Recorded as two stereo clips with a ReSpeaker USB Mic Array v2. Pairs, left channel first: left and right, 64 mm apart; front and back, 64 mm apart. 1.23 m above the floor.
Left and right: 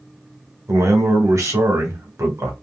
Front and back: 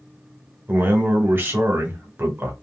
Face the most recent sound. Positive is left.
turn(degrees=-125)